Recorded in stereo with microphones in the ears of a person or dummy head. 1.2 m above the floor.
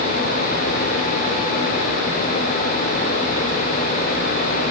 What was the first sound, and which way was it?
Only background noise.